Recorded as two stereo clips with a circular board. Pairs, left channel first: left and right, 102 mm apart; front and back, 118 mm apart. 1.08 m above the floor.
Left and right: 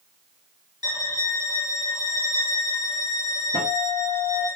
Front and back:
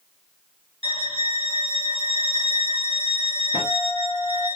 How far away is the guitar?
About 1.4 m.